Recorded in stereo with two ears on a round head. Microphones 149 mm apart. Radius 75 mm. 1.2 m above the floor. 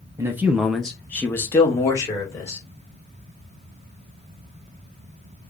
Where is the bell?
No bell in this recording.